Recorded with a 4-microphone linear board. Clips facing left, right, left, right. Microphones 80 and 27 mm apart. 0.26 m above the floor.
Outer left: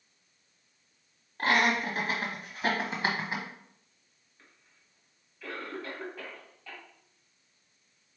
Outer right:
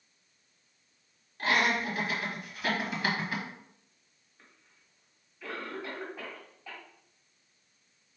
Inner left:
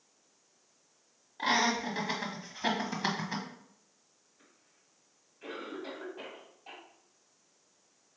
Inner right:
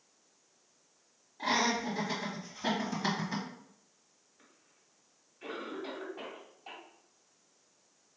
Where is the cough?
10° right (ahead or behind), 2 m.